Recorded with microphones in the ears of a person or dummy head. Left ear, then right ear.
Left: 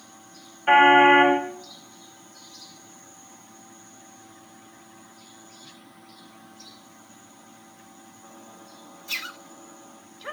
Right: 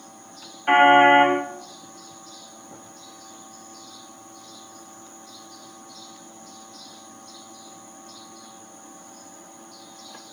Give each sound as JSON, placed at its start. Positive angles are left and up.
{"t": 0.7, "sound": "a car horn", "side_deg": 20, "distance_m": 4.0}